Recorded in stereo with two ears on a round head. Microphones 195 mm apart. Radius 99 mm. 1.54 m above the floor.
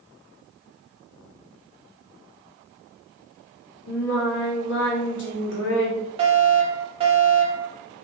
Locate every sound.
3.9 s singing: 60° left (ahead or behind), 2.5 m
6.2 s a fire alarm: 25° right (ahead or behind), 3 m